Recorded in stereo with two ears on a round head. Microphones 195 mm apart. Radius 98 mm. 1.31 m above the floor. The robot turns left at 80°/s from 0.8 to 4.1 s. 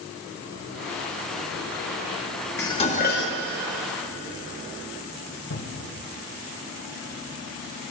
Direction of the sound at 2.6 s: 170° left.